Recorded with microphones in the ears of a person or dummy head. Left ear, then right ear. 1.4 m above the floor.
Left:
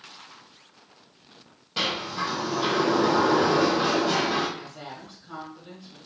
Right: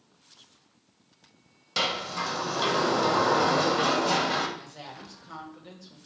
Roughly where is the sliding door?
Right.